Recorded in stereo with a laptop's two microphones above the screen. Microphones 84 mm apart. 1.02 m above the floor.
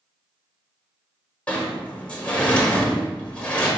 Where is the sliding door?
15° left (ahead or behind), 1.0 m.